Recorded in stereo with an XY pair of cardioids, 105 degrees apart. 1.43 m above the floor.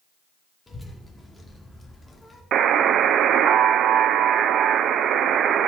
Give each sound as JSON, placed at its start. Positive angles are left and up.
{"t": 0.7, "sound": "a child speaking", "azimuth_deg": 15, "distance_m": 2.5}
{"t": 2.5, "sound": "a buzzer", "azimuth_deg": -65, "distance_m": 0.5}